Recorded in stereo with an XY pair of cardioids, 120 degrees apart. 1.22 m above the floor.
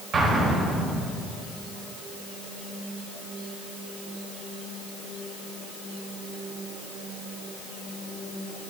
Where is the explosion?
45° right, 3 m.